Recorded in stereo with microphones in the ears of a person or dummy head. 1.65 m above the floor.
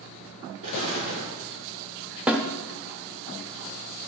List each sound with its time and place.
0.6 s an explosion: 40° right (ahead or behind), 4 m
2.3 s a snare drum: 5° right (ahead or behind), 0.7 m